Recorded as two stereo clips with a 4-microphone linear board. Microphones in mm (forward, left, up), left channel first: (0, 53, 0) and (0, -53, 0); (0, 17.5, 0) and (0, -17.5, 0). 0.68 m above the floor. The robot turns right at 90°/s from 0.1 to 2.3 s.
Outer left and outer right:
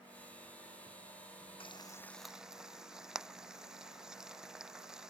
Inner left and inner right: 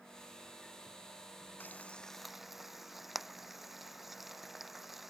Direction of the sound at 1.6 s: 55° left (ahead or behind).